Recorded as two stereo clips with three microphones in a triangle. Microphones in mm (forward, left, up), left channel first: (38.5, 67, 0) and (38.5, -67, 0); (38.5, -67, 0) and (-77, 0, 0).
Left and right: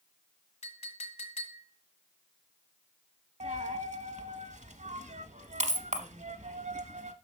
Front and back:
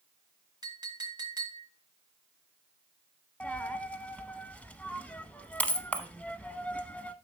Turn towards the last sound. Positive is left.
turn(degrees=-110)